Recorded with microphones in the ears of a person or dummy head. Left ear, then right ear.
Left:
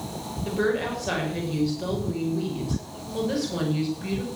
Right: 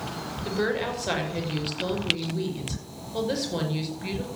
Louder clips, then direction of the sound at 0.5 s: Left 2 dB; 30° right (ahead or behind).